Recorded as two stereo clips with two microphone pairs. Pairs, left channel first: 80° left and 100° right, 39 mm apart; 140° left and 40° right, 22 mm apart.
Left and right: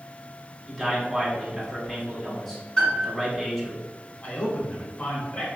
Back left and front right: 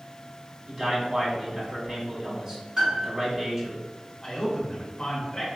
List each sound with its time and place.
0.7 s a man speaking: straight ahead, 1.1 m
2.8 s a piano: 15° left, 1.5 m
4.2 s a man speaking: 85° left, 1.2 m